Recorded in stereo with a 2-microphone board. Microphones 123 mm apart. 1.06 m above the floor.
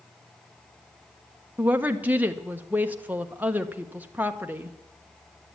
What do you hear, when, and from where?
1.6 s a woman speaking: 15° right (ahead or behind), 1.0 m